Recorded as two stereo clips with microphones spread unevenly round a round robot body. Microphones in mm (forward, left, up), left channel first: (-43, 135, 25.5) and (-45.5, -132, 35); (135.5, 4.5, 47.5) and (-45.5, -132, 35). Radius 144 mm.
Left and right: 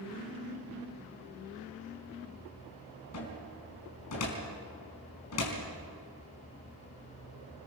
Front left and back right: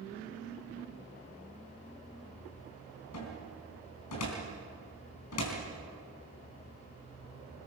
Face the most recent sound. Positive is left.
turn(degrees=55)